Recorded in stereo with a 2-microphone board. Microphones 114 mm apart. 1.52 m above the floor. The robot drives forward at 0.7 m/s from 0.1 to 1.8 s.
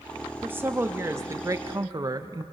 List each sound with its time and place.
0.4 s a woman speaking: 15° right (ahead or behind), 1.9 m; by 2.5 s 30° right (ahead or behind), 1.0 m